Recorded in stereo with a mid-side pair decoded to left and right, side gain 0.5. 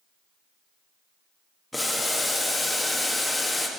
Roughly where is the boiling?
Ahead.